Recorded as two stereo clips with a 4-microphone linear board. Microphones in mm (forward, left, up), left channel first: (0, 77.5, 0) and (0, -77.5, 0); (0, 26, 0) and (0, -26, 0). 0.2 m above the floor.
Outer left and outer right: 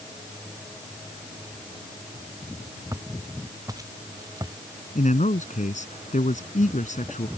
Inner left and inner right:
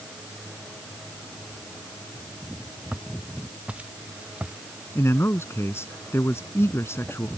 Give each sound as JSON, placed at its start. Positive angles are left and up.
{"t": 2.9, "sound": "footsteps", "side_deg": -20}
{"t": 5.0, "sound": "a man speaking", "side_deg": 55}